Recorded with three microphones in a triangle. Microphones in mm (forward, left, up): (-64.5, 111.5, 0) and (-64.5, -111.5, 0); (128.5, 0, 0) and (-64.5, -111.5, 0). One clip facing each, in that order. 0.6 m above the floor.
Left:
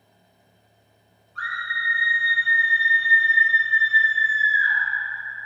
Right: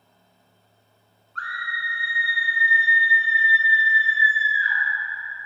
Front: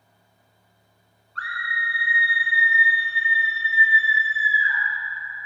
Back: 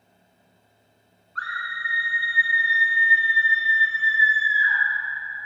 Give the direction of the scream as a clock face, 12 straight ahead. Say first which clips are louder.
Even, front 2 dB; 6 o'clock.